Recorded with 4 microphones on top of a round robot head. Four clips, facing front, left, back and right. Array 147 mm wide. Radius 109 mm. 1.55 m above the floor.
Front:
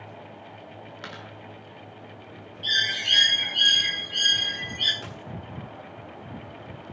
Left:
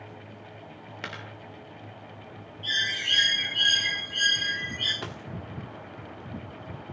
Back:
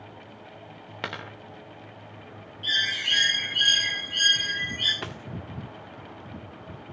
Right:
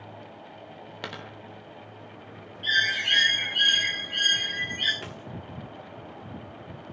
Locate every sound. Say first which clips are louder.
1.0 s a dropped coin: right 1 dB, back 7 dB; 160° right, 1.0 m
2.6 s a bird: right 5 dB, front 1 dB; 75° right, 1.6 m
5.0 s a dropped coin: left 2 dB, back 3 dB; 150° left, 1.3 m